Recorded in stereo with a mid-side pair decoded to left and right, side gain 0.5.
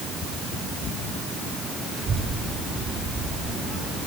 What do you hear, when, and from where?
1.9 s a child speaking: 45° right, 6.5 m